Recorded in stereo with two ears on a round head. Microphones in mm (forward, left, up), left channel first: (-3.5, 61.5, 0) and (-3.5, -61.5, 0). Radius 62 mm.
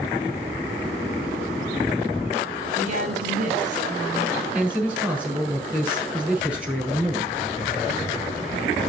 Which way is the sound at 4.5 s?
10° right (ahead or behind).